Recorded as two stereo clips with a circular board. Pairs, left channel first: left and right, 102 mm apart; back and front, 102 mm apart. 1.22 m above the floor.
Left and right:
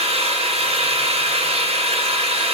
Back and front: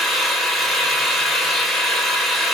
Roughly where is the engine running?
Right.